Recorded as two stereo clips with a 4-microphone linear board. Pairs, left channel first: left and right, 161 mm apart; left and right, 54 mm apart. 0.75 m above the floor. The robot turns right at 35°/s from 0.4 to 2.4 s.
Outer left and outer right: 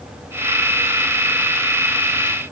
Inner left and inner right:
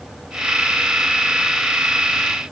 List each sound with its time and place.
Only background noise.